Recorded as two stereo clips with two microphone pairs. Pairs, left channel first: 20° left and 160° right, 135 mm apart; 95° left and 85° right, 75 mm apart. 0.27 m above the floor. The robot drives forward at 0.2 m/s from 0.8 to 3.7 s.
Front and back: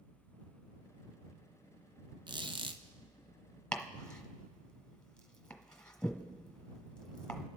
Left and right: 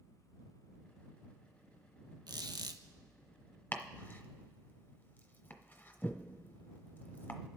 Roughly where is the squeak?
Right.